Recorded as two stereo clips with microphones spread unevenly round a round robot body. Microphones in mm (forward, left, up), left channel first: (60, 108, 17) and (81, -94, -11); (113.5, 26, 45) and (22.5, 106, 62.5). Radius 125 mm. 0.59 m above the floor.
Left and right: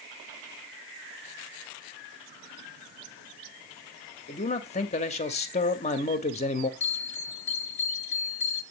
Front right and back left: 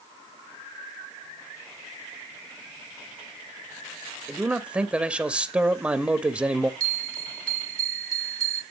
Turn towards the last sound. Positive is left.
turn(degrees=160)